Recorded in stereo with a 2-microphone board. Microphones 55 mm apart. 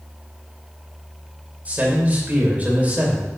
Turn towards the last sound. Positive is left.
turn(degrees=-30)  # may be behind; listen again after turning